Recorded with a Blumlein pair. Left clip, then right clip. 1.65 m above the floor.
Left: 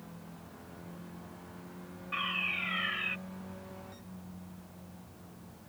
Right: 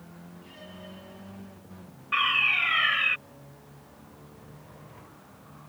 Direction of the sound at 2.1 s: 60° right.